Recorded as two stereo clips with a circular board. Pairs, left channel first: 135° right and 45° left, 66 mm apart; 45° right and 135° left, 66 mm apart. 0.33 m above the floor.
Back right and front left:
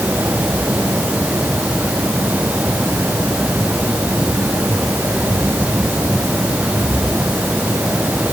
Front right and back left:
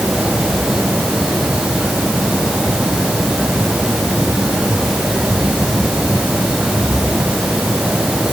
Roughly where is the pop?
No pop in this recording.